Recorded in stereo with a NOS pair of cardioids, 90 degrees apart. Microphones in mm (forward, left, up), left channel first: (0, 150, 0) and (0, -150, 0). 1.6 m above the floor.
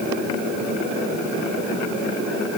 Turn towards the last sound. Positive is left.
No sound to turn to.